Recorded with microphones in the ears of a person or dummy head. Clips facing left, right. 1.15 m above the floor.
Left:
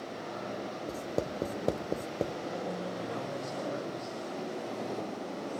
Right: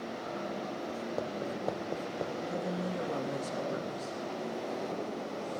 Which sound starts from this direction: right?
A woman speaking, at 2.5 s.